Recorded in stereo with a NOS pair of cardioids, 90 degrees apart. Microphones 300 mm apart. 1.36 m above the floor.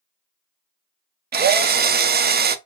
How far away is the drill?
About 0.5 m.